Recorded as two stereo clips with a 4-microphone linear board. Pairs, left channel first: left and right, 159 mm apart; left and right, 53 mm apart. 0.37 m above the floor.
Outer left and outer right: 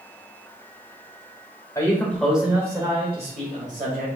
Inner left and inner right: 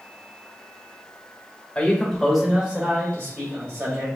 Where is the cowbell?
No cowbell in this recording.